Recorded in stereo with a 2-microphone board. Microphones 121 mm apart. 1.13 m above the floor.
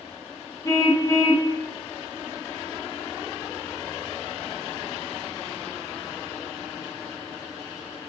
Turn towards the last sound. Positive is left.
turn(degrees=25)  # may be behind; listen again after turning